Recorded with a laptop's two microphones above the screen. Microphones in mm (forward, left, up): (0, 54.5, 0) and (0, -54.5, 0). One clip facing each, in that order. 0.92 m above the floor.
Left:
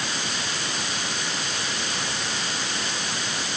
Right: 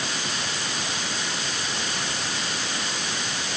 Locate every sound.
Only background noise.